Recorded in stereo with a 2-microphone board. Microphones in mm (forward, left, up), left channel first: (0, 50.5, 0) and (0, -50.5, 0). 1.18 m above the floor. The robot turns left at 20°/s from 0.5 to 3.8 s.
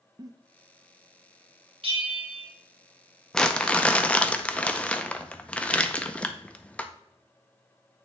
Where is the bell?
60° right (ahead or behind), 1.4 m; by 2.5 s 70° right (ahead or behind), 1.4 m.